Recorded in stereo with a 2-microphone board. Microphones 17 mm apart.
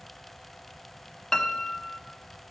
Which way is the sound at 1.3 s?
30° left (ahead or behind).